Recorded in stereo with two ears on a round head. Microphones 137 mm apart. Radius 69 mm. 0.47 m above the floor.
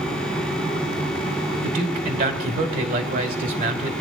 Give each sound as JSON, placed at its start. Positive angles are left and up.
{"t": 1.6, "sound": "a man speaking", "side_deg": -55, "distance_m": 1.5}